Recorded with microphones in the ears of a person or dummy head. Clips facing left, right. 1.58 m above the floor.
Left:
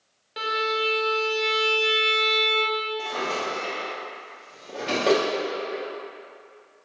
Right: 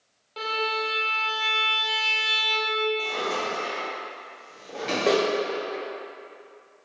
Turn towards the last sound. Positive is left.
turn(degrees=0)  # may be behind; listen again after turning